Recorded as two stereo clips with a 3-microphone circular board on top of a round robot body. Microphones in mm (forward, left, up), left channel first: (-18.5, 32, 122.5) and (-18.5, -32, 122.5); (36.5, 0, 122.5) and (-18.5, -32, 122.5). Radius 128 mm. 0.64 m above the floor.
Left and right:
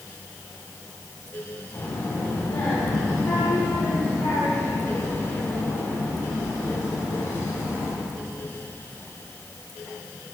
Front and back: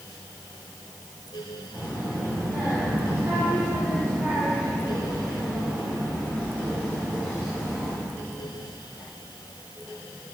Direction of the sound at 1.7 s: 150° left.